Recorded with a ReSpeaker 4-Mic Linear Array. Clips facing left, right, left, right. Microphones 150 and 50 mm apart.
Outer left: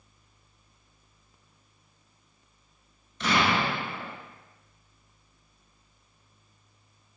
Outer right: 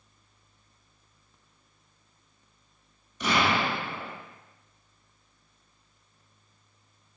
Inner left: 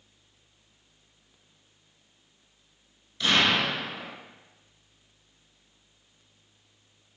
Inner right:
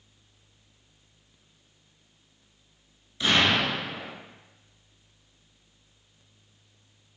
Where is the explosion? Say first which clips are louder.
Even, inner right 1 dB; 15° right (ahead or behind), 0.8 m.